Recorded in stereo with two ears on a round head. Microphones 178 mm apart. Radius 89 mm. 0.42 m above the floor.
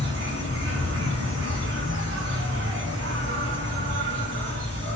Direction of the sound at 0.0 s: 60° right (ahead or behind).